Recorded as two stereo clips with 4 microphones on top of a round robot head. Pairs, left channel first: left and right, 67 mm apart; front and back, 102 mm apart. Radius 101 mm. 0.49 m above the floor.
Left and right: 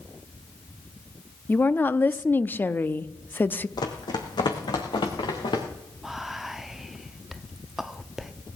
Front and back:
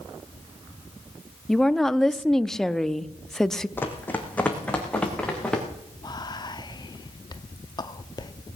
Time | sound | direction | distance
1.5 | a woman speaking | 80° left | 0.7 m
3.8 | running footsteps | 70° left | 1.7 m
6.0 | whispering | 5° right | 0.8 m